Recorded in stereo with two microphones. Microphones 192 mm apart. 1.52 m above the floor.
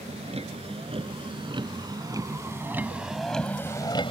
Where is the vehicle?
30° right (ahead or behind); by 4.1 s 25° left (ahead or behind).